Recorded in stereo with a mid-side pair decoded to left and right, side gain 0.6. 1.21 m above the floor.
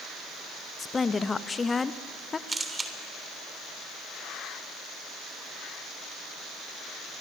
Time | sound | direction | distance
0.8 | a woman speaking | 25° left | 1.1 m
2.5 | a camera shutter | 20° right | 3 m